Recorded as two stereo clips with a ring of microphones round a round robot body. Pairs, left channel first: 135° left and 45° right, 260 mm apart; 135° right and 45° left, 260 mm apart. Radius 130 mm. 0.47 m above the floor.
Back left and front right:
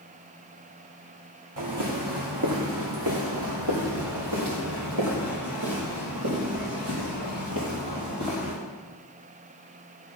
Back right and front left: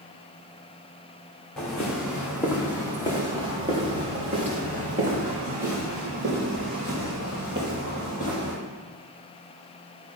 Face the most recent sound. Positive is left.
turn(degrees=-5)